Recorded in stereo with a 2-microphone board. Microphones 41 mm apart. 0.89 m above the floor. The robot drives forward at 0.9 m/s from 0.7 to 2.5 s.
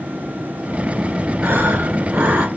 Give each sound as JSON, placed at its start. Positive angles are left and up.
{"t": 1.4, "sound": "breathing", "side_deg": -80, "distance_m": 3.5}